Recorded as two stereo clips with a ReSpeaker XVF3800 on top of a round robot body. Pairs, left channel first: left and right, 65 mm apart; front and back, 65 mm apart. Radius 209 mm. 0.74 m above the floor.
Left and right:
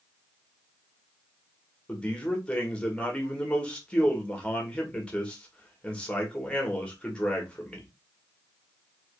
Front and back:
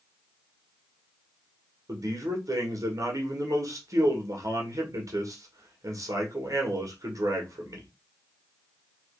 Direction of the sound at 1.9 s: 160° left.